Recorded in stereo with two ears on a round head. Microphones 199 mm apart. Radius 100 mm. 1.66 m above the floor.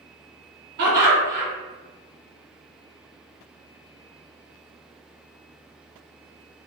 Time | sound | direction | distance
0.8 | laughter | 50° right (ahead or behind) | 1.7 m